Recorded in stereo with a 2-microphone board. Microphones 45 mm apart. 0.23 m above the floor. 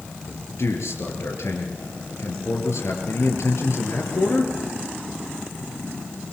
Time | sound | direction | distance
0.3 | a man speaking | 75° left (ahead or behind) | 4 m